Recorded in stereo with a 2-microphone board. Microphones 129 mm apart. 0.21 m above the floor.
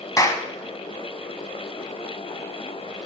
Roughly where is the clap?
Left.